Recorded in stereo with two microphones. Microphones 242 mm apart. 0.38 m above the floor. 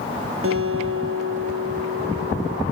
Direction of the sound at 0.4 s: 65° right (ahead or behind).